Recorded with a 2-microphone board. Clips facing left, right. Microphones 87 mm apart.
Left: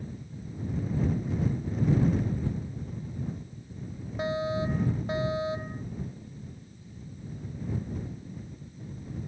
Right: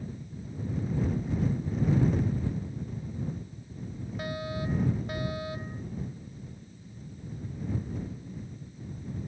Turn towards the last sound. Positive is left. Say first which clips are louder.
# left 6 dB
turn(degrees=25)  # may be behind; listen again after turning